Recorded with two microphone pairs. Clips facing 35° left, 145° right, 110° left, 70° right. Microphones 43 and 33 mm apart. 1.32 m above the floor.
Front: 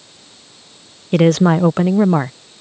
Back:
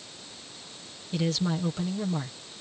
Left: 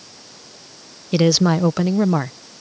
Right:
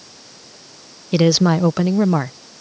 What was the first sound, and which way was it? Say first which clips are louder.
A woman speaking: front 16 dB, right 1 dB; 15° left.